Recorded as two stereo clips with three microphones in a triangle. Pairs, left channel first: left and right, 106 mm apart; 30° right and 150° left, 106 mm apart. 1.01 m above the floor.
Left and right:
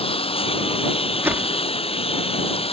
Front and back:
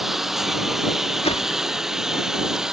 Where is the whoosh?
20° right.